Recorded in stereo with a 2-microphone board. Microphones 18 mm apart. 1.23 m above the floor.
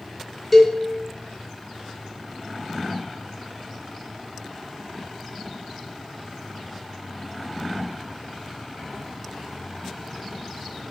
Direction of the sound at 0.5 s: 5° left (ahead or behind).